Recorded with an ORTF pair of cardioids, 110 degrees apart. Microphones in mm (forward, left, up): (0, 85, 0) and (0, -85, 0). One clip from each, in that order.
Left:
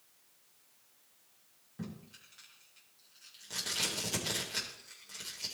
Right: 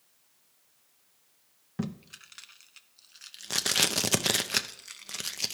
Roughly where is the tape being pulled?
Ahead right.